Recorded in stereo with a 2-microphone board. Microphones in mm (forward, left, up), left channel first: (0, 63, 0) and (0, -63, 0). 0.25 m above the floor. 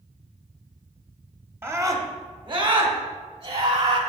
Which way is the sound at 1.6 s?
20° right (ahead or behind).